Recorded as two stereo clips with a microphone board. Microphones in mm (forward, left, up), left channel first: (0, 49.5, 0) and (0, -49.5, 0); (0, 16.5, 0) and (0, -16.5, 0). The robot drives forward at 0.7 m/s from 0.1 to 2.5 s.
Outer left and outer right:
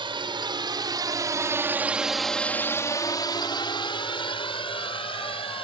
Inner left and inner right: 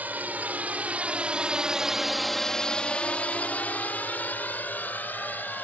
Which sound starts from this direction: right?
A drone, at 0.0 s.